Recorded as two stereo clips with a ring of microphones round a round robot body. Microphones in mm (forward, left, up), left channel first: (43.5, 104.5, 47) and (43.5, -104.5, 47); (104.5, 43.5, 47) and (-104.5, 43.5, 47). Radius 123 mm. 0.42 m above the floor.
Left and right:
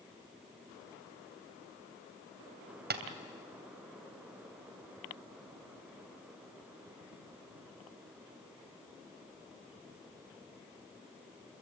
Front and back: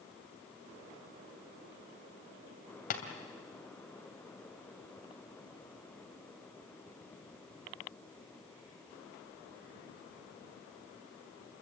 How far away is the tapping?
About 2.5 m.